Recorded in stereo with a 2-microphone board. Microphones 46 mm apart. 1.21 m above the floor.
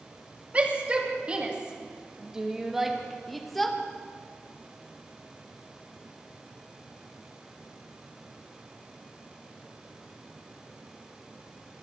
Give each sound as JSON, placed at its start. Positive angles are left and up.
{"t": 0.5, "sound": "a shout", "side_deg": -30, "distance_m": 2.5}